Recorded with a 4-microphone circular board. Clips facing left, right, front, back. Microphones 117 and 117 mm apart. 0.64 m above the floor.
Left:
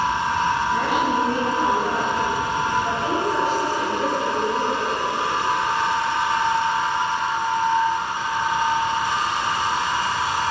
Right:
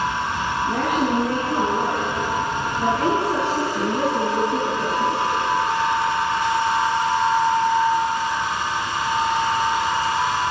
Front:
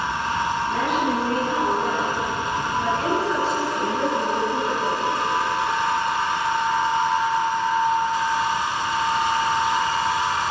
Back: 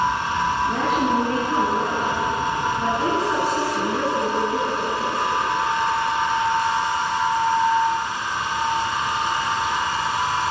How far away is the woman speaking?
About 7.5 m.